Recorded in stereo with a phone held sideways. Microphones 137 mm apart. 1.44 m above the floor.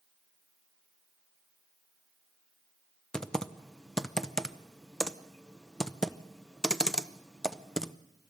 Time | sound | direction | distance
3.1 | typing on a keyboard | 5° left (ahead or behind) | 0.6 m